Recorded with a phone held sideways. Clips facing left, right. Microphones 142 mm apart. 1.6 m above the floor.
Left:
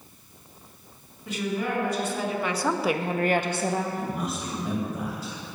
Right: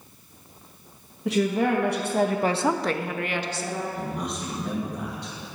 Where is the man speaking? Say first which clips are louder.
Left 1 dB; 5° left (ahead or behind), 2.5 m.